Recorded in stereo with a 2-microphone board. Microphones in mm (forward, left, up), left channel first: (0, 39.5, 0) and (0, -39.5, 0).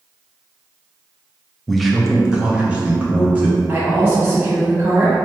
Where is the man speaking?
5° left (ahead or behind), 0.5 m; by 3.6 s 20° right (ahead or behind), 1.5 m.